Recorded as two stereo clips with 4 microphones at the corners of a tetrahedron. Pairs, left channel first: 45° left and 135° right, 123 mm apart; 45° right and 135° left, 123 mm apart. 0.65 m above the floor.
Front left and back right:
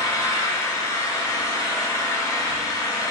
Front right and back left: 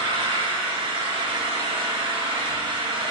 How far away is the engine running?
About 1.2 m.